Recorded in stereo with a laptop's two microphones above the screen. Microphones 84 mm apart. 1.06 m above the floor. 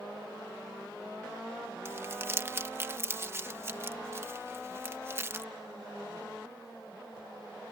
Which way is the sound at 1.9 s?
30° right (ahead or behind).